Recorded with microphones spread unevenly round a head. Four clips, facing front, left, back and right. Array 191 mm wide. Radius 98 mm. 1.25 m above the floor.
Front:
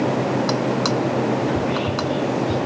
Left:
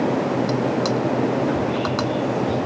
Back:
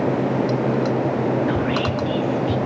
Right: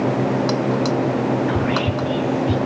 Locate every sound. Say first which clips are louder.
1.5 s whispering: right 1 dB, even; 95° right, 1.2 m